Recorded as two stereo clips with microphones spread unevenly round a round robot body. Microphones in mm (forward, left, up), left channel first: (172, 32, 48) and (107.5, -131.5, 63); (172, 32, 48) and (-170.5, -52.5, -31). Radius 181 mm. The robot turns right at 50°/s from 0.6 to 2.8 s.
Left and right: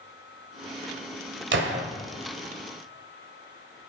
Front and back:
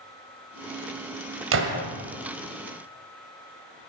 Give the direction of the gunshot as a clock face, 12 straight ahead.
4 o'clock.